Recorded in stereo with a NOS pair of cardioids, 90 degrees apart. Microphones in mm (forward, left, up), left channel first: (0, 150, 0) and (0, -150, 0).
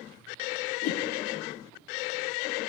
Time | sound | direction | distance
0.8 | a whoosh | 55° left | 0.6 m